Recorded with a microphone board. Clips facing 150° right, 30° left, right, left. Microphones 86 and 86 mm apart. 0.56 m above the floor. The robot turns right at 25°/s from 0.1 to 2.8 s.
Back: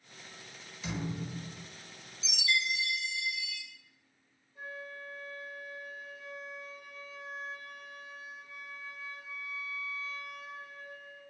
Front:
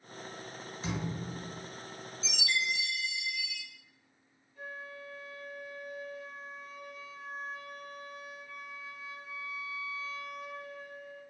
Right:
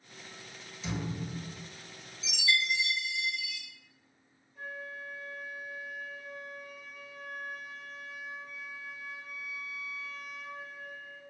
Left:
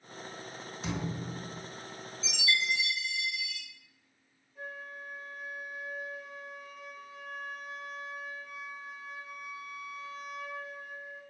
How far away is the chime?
About 1.1 m.